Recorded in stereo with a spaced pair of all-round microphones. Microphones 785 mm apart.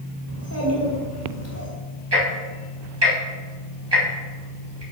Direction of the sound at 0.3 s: 20° left (ahead or behind).